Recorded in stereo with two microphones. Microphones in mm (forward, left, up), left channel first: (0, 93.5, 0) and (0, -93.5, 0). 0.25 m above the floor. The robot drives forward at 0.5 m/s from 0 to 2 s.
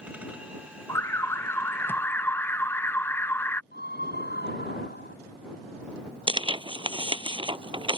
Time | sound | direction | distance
0.9 | an alarm | 15° left (ahead or behind) | ?
3.7 | a scream | 60° left (ahead or behind) | ?
6.3 | tearing paper | 25° right (ahead or behind) | ?